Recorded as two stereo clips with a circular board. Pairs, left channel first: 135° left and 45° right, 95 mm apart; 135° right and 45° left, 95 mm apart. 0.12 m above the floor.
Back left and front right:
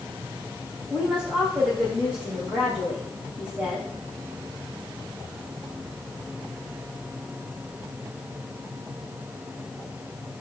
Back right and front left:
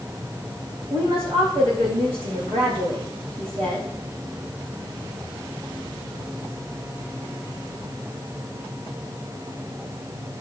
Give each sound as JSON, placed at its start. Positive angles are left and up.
{"t": 0.9, "sound": "a woman speaking", "azimuth_deg": 35, "distance_m": 7.5}